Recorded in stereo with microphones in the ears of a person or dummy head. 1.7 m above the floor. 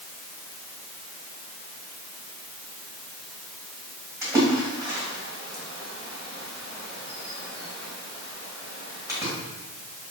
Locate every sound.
4.2 s a splash: 25° right (ahead or behind), 1.2 m